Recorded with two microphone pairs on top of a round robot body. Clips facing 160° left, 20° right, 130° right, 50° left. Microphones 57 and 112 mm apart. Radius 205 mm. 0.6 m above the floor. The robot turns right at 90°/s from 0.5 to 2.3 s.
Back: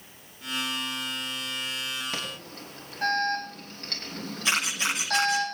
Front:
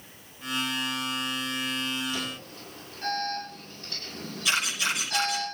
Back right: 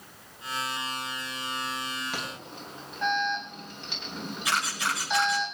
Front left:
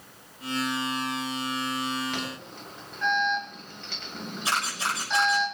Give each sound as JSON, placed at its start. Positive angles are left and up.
{"t": 2.1, "sound": "an alarm", "azimuth_deg": 145, "distance_m": 8.5}
{"t": 4.5, "sound": "a camera shutter", "azimuth_deg": 110, "distance_m": 9.0}